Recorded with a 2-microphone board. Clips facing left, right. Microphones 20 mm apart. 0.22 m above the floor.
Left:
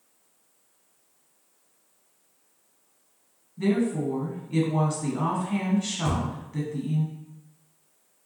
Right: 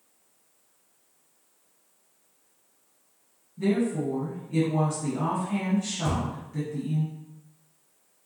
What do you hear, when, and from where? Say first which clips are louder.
3.6 s a woman speaking: left 1 dB; 35° left (ahead or behind), 1.3 m
6.0 s a thud: even; 25° left (ahead or behind), 0.9 m